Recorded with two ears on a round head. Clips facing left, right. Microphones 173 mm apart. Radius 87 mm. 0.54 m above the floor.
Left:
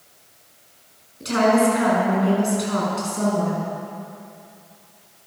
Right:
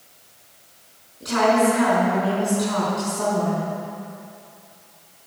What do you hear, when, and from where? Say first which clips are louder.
1.2 s a woman speaking: left 1 dB; 35° left (ahead or behind), 5 m